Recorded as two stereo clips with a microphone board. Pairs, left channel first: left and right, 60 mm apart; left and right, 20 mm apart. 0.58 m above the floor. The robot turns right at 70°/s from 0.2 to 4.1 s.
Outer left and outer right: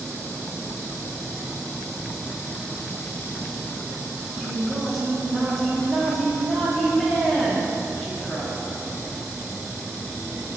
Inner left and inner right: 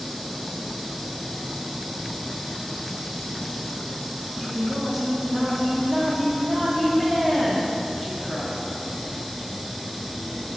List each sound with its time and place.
4.4 s a woman speaking: centre (ahead or behind), 0.6 m